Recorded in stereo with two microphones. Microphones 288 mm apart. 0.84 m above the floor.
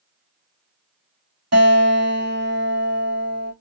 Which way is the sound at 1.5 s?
60° right (ahead or behind).